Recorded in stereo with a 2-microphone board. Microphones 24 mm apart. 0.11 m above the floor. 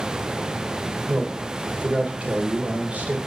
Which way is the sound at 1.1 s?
60° right (ahead or behind).